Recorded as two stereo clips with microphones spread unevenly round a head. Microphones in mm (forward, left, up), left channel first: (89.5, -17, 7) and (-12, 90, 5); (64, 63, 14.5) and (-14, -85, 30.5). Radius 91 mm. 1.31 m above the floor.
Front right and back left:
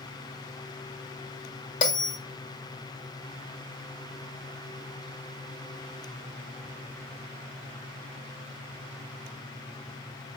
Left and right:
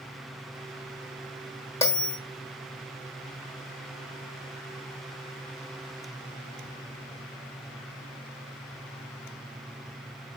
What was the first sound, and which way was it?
A bell, 15° right.